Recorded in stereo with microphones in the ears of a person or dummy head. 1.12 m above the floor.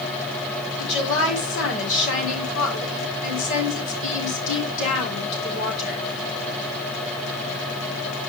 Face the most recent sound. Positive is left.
turn(degrees=75)  # may be behind; listen again after turning